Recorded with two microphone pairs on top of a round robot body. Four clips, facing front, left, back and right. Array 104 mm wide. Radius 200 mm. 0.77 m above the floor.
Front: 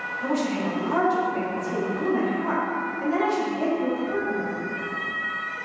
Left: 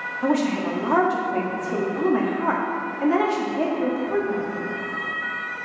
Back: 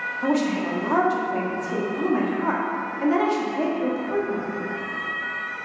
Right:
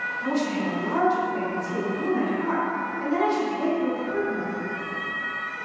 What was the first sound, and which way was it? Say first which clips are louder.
A woman speaking: left 5 dB, back 3 dB; 115° left.